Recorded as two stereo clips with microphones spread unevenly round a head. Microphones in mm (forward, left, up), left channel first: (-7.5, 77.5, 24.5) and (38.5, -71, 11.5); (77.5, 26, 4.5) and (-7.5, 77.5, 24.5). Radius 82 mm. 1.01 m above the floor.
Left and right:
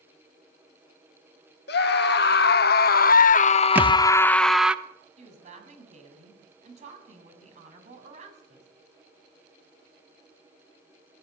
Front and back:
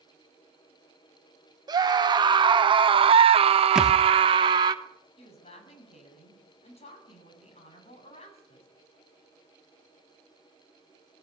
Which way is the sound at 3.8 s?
150° right.